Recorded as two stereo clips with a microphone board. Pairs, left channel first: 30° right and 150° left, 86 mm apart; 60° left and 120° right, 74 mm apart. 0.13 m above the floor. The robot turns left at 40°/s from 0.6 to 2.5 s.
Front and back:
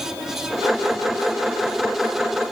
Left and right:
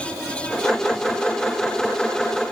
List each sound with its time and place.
Only background noise.